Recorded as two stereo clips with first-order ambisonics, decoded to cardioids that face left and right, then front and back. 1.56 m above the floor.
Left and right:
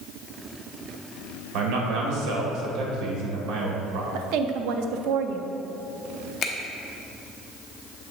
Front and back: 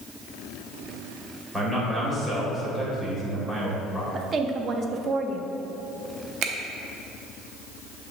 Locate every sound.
1.5 s a man speaking: 95° right, 1.8 m
4.1 s a woman speaking: 115° right, 0.6 m
6.4 s a finger snap: 145° left, 0.8 m